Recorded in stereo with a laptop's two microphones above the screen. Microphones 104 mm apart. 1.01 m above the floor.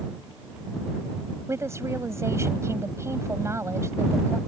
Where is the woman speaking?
25° right (ahead or behind).